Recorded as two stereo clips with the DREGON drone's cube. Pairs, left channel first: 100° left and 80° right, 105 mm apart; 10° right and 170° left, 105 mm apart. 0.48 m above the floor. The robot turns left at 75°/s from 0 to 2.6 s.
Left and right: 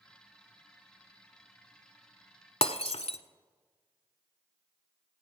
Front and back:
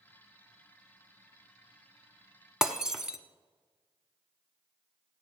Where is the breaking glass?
85° left, 0.9 m.